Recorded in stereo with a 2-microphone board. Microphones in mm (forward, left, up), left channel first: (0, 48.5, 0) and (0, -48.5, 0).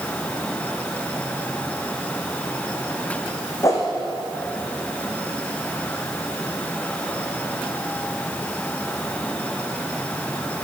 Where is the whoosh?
35° left (ahead or behind), 2 m.